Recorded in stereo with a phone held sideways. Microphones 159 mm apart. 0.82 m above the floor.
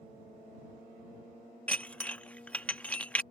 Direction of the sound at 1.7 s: 10° left (ahead or behind).